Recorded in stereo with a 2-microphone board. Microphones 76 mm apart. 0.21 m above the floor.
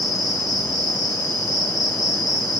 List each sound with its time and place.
0.0 s an insect: 55° left (ahead or behind), 1.8 m